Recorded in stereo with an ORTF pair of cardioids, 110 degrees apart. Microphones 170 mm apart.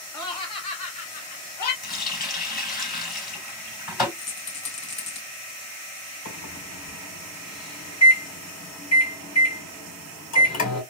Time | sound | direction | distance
0.1 | laughter | 25° left | 1.7 m
1.8 | a running tap | 60° left | 3 m
4.2 | a rattle | 45° left | 2.5 m
6.2 | a microwave | 55° left | 3 m